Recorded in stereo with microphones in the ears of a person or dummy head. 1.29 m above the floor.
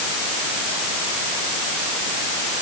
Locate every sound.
Only background noise.